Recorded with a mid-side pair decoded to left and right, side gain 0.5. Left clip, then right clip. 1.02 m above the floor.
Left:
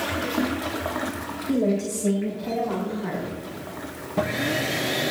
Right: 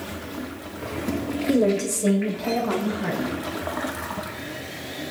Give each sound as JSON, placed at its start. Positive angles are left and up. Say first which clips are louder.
{"t": 1.5, "sound": "a woman speaking", "louder": "right 3 dB", "azimuth_deg": -50, "distance_m": 3.0}